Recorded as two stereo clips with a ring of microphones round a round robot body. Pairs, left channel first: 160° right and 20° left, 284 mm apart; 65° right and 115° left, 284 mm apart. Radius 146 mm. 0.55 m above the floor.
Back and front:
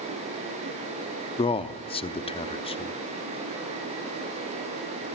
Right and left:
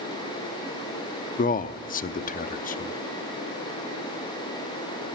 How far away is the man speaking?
About 0.7 m.